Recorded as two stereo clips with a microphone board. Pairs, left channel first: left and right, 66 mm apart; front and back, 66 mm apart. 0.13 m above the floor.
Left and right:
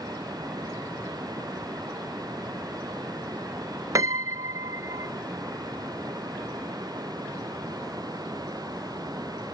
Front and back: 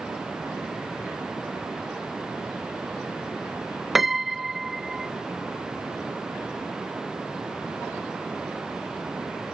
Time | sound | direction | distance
0.0 | running water | 100° right | ?
4.0 | a piano | 95° right | ?